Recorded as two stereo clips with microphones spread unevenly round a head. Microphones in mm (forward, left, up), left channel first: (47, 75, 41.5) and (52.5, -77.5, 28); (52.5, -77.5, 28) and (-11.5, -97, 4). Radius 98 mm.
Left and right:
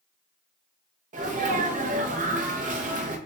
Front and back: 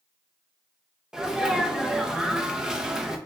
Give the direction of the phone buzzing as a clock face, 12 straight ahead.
No phone buzzing in this recording.